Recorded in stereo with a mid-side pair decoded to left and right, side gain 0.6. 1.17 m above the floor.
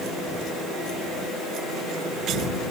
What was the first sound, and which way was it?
Only background noise.